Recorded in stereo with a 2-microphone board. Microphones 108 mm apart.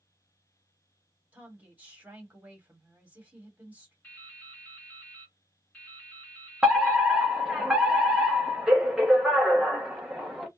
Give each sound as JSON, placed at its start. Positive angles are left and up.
{"t": 1.3, "sound": "a woman speaking", "side_deg": -15, "distance_m": 1.4}
{"t": 4.0, "sound": "dripping", "side_deg": 10, "distance_m": 1.2}
{"t": 6.6, "sound": "a fire alarm", "side_deg": -5, "distance_m": 0.8}